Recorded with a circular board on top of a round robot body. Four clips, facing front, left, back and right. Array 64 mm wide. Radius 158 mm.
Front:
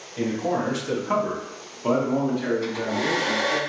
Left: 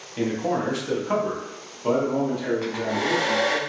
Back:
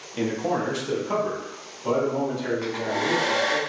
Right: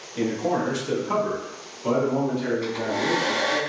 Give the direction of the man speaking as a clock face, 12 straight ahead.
7 o'clock.